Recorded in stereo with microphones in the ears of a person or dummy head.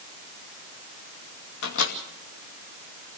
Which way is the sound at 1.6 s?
70° left (ahead or behind).